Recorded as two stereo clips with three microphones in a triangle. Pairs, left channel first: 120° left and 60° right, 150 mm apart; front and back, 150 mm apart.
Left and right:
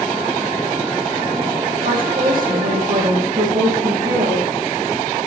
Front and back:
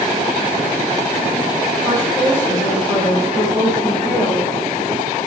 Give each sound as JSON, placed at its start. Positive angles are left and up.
{"t": 1.8, "sound": "a woman speaking", "azimuth_deg": -80, "distance_m": 6.5}